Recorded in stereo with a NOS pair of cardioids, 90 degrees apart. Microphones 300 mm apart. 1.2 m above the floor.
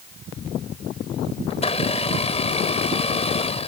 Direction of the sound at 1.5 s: 20° left.